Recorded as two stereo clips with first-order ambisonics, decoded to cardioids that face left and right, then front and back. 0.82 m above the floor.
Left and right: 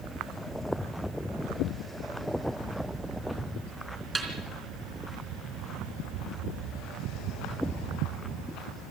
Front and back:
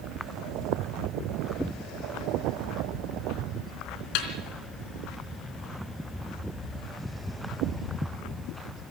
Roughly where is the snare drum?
Ahead.